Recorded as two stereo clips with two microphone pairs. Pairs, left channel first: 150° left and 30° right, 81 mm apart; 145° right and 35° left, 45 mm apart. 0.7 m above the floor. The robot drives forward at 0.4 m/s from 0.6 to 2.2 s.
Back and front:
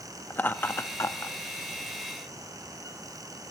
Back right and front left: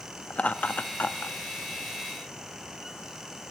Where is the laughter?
165° right, 0.5 m; by 1.4 s 170° right, 0.8 m.